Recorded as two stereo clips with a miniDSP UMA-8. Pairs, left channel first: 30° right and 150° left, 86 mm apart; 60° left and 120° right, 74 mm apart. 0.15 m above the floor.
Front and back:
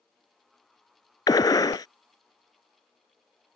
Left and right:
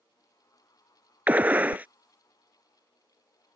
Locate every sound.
1.3 s a gunshot: 55° right